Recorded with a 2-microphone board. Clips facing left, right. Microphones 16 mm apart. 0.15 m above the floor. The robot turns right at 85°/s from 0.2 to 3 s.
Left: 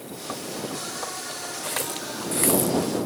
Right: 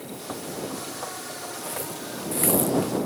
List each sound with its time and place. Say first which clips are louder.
1.6 s a running tap: left 5 dB; 80° left; by 2.9 s 10° right (ahead or behind)